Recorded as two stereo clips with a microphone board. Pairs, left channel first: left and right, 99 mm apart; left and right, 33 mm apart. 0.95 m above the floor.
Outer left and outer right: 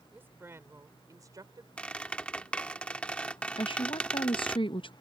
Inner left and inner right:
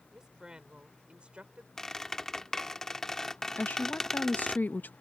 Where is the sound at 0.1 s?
20° right (ahead or behind); by 1.7 s 45° right (ahead or behind).